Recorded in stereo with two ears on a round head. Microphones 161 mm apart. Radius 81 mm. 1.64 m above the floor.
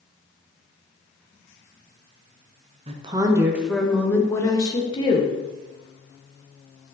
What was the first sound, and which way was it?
A woman speaking, 35° right (ahead or behind).